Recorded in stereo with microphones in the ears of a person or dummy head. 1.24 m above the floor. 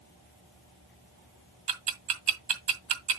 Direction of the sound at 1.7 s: 40° right (ahead or behind).